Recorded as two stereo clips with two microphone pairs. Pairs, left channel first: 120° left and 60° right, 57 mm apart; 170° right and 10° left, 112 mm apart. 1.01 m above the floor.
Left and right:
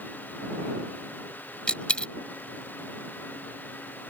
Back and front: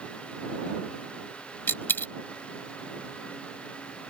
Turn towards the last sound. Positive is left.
turn(degrees=155)